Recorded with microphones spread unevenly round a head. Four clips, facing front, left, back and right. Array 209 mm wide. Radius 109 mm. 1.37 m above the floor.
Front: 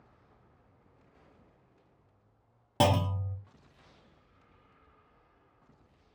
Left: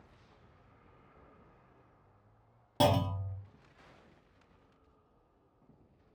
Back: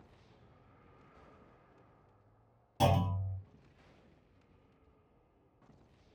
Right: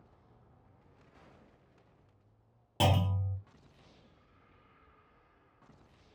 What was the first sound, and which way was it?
A clunk, 10° left.